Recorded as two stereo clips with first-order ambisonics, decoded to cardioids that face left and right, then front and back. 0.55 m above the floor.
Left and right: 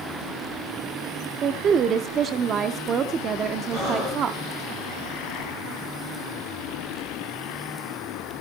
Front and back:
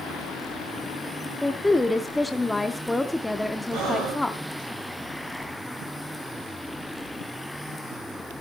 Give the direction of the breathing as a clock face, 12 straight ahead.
5 o'clock.